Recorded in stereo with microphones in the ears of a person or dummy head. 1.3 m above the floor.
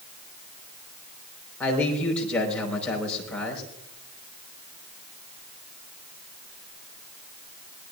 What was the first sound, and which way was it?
A man speaking, 5° left (ahead or behind).